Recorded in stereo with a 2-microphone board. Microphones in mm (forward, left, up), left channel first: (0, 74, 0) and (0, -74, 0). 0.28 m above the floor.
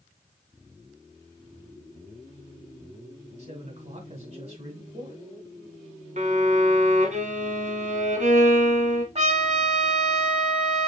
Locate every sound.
3.4 s a man speaking: 50° right (ahead or behind), 2 m
6.2 s a violin: 55° right (ahead or behind), 1.0 m
9.2 s a trumpet: 50° right (ahead or behind), 1.2 m